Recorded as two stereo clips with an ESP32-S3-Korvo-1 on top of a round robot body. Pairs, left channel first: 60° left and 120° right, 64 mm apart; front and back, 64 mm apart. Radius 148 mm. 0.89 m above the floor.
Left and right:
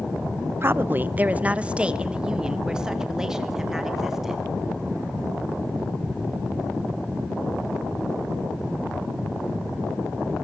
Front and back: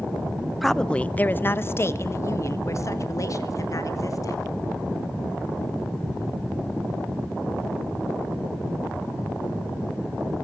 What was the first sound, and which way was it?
A woman speaking, 90° right.